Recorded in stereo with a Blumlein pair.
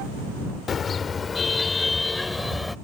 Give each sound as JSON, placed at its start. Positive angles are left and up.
{"t": 0.7, "sound": "a car horn", "azimuth_deg": 25}